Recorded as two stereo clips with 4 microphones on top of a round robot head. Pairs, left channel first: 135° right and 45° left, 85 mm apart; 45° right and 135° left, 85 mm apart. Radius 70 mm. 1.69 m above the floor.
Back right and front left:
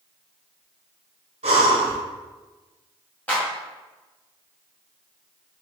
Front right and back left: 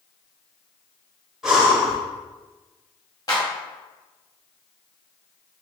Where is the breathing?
50° left, 0.8 m.